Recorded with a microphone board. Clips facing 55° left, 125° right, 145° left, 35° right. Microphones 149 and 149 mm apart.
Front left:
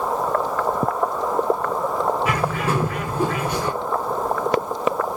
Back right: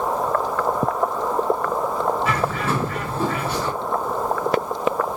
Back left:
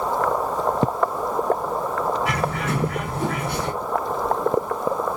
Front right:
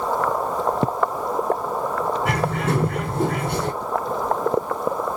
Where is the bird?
20° right, 3 m.